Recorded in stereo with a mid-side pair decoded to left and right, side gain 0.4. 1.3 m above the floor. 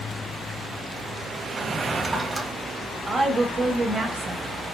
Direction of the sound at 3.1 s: 50° right.